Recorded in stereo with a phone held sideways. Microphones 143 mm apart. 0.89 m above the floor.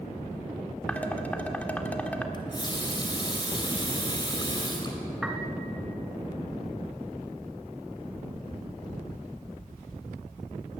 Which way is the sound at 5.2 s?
5° right (ahead or behind).